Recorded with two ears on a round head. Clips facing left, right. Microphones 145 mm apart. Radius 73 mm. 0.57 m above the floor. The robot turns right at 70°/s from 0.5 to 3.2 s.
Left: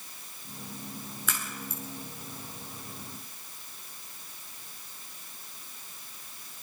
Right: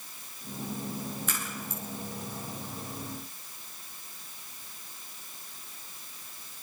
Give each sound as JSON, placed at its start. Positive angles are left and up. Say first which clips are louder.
{"t": 1.3, "sound": "a crack", "louder": "right 1 dB", "side_deg": 65, "distance_m": 6.5}